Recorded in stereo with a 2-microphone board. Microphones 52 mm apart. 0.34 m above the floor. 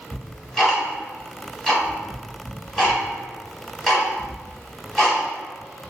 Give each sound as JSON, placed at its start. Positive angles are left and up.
{"t": 0.1, "sound": "ticking", "side_deg": 0, "distance_m": 1.2}